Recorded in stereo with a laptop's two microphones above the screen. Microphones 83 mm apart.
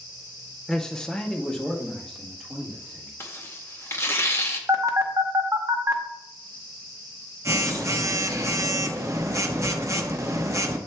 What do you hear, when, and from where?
0.7 s a man speaking: 5° left (ahead or behind), 0.6 m
3.2 s tearing paper: 30° left (ahead or behind), 0.6 m
4.7 s a phone buzzing: 35° right (ahead or behind), 0.5 m